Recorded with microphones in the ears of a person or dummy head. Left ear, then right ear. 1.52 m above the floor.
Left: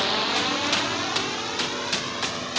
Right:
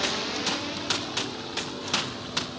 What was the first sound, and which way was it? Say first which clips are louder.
A drone: left 5 dB; 25° left (ahead or behind).